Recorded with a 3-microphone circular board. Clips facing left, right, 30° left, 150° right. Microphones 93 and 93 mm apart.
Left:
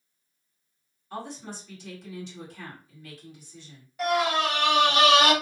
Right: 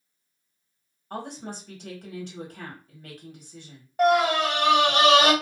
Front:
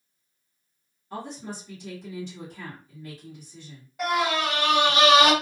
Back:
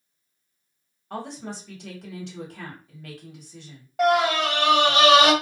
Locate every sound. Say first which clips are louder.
1.1 s a woman speaking: right 2 dB, back 2 dB; 125° right, 1.2 m
4.0 s a scream: right 4 dB, back 5 dB; 135° right, 1.3 m